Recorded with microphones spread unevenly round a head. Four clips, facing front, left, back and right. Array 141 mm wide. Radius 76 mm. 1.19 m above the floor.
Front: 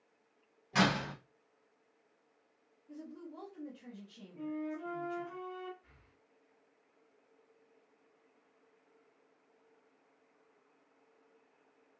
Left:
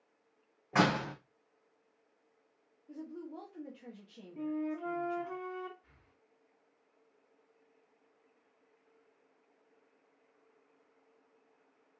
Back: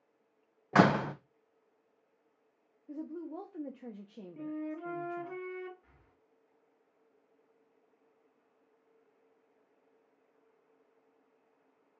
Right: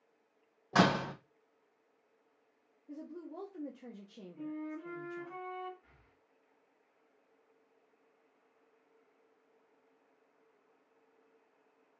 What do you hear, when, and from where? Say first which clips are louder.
0.7 s a door slam: right 1 dB, back 6 dB; 170° right, 0.7 m
2.9 s a woman speaking: left 1 dB, back 7 dB; 165° right, 0.9 m
4.4 s a flute: left 6 dB, even; 110° left, 0.9 m
5.8 s breathing: right 1 dB, back 1 dB; 155° right, 2.5 m